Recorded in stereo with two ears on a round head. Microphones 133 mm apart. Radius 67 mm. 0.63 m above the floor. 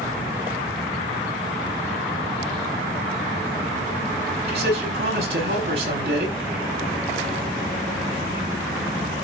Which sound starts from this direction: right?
A man speaking, at 4.5 s.